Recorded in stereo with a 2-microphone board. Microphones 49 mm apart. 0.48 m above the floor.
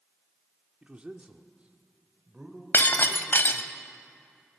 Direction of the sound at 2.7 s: 50° left (ahead or behind).